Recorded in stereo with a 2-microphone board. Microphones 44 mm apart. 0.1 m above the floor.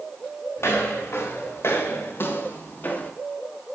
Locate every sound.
0.6 s footsteps: 85° left, 3.5 m; by 3.1 s 35° left (ahead or behind), 1.7 m